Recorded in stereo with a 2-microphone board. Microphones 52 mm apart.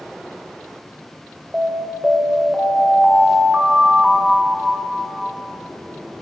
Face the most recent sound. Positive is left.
turn(degrees=-25)  # may be behind; listen again after turning